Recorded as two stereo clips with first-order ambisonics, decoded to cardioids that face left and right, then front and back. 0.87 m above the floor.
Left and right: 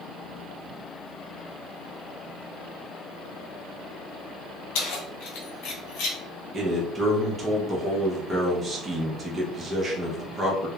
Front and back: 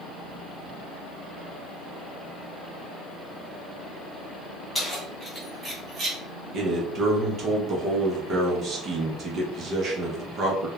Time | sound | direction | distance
4.8 | keys jangling | 85° left | 1.2 m
6.5 | a man speaking | 150° right | 0.6 m